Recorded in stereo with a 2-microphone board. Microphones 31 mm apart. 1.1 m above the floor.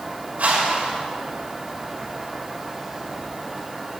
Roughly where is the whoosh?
Right.